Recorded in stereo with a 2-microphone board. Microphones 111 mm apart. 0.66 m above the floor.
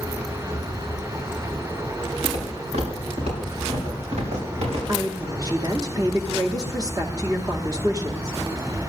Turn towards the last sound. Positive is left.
turn(degrees=-30)  # may be behind; listen again after turning